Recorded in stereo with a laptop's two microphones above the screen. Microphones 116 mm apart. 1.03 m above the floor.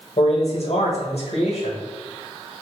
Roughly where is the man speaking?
Left.